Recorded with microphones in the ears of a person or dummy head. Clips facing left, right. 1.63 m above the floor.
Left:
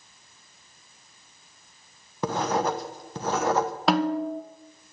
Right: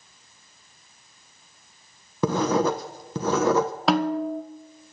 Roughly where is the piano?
No piano in this recording.